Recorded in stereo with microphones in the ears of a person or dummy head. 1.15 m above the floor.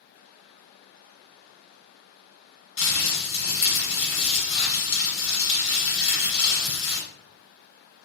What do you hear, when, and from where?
2.8 s crumpling: 65° left (ahead or behind), 1.3 m